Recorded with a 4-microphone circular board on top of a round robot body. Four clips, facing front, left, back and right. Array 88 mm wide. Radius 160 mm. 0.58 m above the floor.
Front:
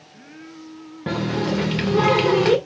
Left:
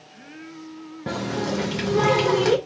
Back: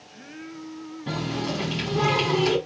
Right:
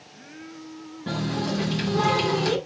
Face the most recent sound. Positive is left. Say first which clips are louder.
# left 1 dB, front 6 dB
turn(degrees=25)